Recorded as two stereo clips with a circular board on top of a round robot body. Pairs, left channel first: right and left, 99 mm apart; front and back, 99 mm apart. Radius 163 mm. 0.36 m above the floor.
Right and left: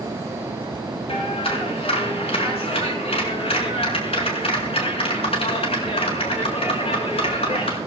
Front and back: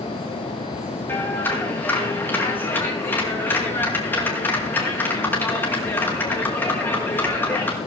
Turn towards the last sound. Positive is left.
turn(degrees=-70)